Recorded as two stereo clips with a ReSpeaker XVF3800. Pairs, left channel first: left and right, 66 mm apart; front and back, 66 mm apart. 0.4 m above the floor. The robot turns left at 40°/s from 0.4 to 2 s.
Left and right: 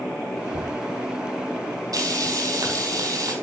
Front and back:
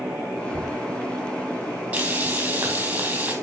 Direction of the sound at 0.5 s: 75° right.